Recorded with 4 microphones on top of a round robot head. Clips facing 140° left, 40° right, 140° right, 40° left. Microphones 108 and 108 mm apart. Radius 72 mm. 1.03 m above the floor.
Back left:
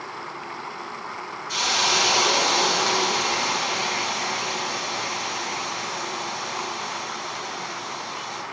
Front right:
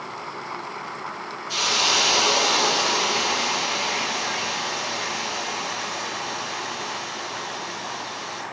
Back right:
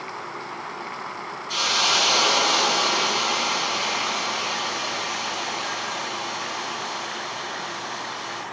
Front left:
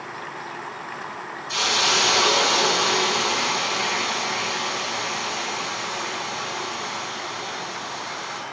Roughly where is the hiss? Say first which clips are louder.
Even, front left 1 dB; left.